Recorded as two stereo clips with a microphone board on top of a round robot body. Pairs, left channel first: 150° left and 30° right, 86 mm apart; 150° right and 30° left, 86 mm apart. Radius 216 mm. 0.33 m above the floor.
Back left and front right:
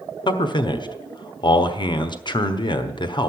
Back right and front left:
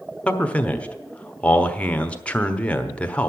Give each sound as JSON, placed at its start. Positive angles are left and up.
{"t": 0.3, "sound": "a man speaking", "azimuth_deg": 135, "distance_m": 1.5}